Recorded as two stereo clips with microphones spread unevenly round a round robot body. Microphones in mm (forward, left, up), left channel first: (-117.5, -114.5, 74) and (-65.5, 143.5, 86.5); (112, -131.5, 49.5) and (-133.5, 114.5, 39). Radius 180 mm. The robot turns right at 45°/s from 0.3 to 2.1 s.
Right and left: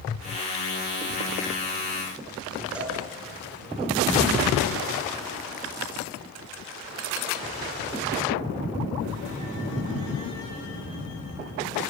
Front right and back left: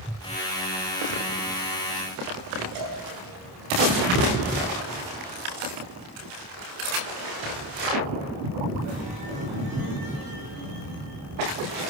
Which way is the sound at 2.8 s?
165° left.